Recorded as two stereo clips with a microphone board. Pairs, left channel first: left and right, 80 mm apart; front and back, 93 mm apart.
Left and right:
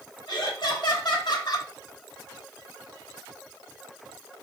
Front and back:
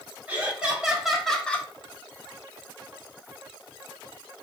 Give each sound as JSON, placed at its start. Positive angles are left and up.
{"t": 0.3, "sound": "laughter", "azimuth_deg": 105, "distance_m": 2.0}